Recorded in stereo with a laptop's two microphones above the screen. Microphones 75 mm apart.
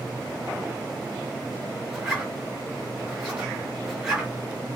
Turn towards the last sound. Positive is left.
turn(degrees=-5)  # may be behind; listen again after turning